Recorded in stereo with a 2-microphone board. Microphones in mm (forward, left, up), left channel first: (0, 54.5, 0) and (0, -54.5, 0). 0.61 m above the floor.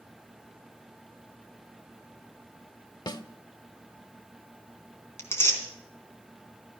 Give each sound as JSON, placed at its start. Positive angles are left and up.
{"t": 3.1, "sound": "a snare drum", "side_deg": 40, "distance_m": 0.8}
{"t": 5.2, "sound": "tearing paper", "side_deg": 20, "distance_m": 3.5}